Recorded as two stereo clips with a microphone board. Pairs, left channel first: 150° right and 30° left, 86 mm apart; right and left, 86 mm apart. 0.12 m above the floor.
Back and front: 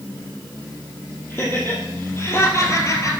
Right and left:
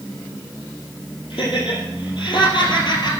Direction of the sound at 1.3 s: 85° right.